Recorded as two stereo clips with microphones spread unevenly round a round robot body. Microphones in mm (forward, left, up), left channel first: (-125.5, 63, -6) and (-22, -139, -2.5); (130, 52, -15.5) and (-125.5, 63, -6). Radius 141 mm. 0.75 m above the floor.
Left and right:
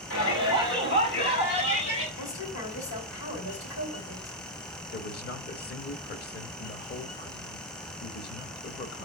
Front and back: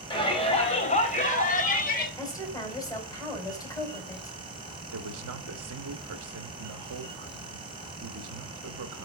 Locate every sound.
0.1 s a shout: 70° left, 3.5 m; by 2.1 s 50° left, 3 m
2.2 s a woman speaking: 75° left, 4 m
4.9 s a man speaking: 155° left, 1.2 m